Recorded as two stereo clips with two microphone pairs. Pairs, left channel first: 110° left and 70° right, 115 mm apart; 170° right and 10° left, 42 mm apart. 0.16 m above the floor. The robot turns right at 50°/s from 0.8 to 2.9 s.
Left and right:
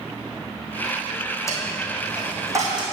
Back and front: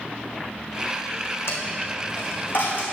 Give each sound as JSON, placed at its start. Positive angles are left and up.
{"t": 1.5, "sound": "a dropped coin", "azimuth_deg": 175, "distance_m": 2.0}